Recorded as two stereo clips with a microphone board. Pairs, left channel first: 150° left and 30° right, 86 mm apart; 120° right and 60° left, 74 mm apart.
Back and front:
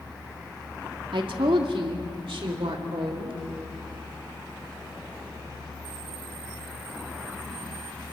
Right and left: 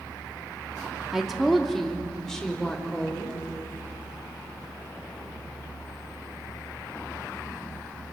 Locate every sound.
1.1 s a woman speaking: 25° right, 2 m; by 3.4 s 40° right, 5 m